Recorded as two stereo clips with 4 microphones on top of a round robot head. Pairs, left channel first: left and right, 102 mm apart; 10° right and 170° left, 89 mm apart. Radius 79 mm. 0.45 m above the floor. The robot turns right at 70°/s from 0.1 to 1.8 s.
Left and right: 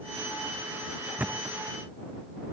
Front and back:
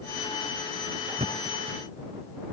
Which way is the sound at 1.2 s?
165° right.